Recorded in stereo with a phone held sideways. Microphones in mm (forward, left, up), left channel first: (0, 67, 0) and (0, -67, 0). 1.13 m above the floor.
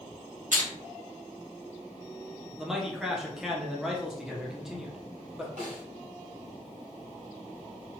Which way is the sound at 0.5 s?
75° right (ahead or behind).